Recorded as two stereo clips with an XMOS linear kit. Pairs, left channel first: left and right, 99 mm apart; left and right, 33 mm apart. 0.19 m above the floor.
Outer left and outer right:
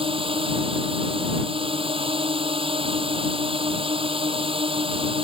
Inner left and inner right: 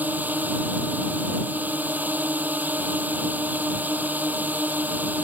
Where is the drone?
65° right (ahead or behind).